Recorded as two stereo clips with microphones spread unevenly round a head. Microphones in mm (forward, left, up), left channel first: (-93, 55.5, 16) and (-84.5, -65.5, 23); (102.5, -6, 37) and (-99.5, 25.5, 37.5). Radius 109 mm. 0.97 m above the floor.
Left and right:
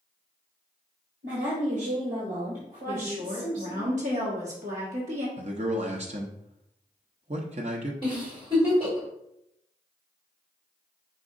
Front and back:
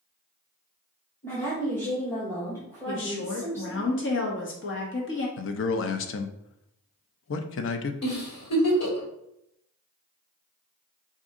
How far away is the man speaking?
About 0.6 m.